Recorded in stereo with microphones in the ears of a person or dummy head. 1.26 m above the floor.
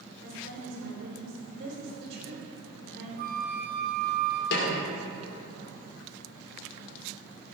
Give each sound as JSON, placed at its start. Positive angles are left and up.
{"t": 0.2, "sound": "a woman speaking", "side_deg": -65, "distance_m": 4.0}
{"t": 3.2, "sound": "a flute", "side_deg": -50, "distance_m": 1.1}
{"t": 4.5, "sound": "a snare drum", "side_deg": 55, "distance_m": 2.0}